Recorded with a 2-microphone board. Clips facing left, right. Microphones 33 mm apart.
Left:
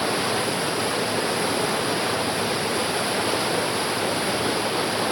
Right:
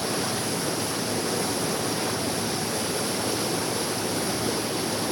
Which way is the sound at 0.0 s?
35° left (ahead or behind).